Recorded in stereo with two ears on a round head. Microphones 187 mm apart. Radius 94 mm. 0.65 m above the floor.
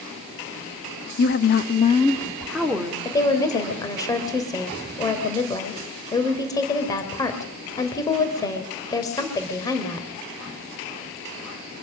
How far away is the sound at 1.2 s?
About 1.3 m.